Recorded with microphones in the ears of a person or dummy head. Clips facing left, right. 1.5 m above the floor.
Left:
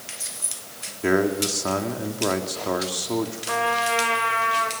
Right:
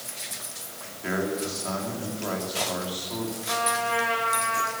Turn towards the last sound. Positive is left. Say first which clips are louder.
# left 2 dB
turn(degrees=50)  # may be behind; listen again after turning